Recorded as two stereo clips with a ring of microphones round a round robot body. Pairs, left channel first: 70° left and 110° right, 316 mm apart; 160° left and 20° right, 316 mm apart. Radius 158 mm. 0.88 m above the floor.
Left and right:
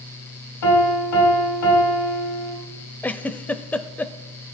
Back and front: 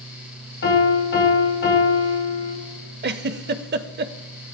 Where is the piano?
100° left, 5.5 m.